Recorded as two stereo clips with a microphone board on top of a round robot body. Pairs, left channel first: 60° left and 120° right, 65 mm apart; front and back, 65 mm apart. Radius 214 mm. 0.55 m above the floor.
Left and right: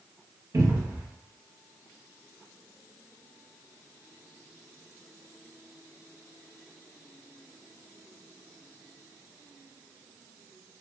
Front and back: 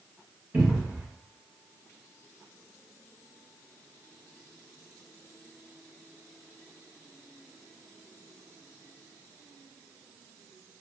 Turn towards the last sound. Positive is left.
turn(degrees=-120)